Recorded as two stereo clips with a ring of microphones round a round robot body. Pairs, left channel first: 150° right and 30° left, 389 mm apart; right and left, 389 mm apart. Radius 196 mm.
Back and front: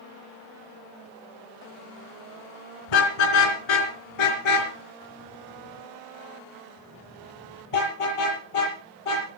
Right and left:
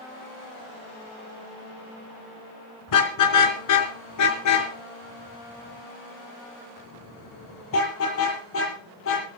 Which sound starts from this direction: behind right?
A car horn, at 2.9 s.